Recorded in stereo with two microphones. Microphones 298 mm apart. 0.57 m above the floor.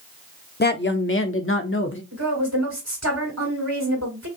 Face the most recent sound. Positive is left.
turn(degrees=-60)  # may be behind; listen again after turning